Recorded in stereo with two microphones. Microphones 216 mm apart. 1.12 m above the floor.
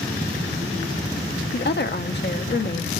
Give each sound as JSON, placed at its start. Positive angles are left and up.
{"t": 1.5, "sound": "a woman speaking", "side_deg": 55, "distance_m": 0.7}